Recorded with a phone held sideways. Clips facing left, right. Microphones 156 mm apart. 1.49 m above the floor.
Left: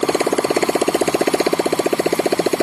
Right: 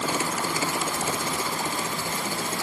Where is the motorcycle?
80° left; by 2.6 s 85° left.